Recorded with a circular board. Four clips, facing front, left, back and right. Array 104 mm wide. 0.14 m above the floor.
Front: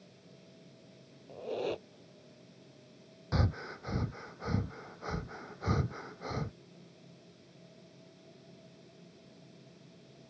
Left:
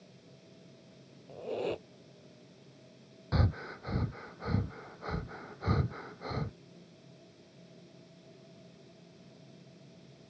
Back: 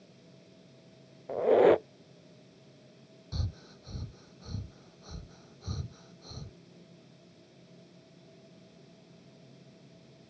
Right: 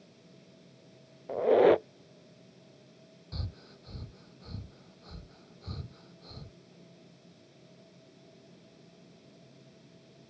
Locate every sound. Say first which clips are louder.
1.3 s a squeak: right 14 dB, back 15 dB; 135° right
3.3 s breathing: left 13 dB, front 9 dB; 45° left